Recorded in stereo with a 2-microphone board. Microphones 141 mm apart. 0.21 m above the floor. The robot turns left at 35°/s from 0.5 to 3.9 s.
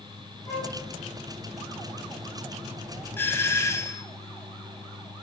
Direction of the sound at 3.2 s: 15° left (ahead or behind).